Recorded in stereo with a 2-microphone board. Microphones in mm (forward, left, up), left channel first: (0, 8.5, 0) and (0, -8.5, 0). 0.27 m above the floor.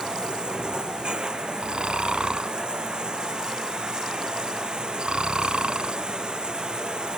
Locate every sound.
0.0 s running water: 60° right (ahead or behind)
1.6 s snoring: 70° right (ahead or behind)